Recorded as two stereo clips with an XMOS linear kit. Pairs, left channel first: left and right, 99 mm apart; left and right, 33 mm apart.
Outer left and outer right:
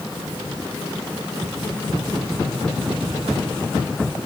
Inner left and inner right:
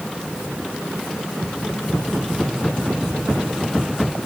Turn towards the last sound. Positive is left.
No sound to turn to.